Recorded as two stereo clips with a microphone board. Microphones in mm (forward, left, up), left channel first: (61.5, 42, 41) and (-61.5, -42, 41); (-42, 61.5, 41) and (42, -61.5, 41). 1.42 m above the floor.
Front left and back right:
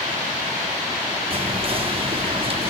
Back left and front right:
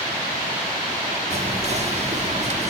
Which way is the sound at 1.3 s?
95° right.